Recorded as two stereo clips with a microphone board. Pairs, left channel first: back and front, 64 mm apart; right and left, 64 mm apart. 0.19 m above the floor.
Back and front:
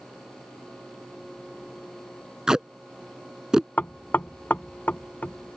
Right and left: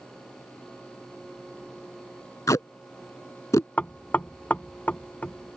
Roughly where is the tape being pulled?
Right.